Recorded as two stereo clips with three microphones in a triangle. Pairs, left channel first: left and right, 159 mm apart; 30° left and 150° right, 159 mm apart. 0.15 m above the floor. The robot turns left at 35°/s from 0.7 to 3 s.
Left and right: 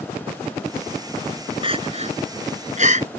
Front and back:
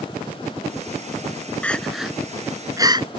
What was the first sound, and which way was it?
Crying, 50° right.